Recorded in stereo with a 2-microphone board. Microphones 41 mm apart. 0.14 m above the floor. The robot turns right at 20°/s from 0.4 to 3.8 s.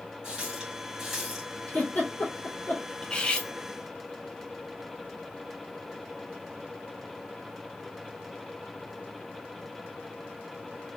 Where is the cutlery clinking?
20° left (ahead or behind), 0.7 m; by 3.5 s 25° left (ahead or behind), 0.7 m.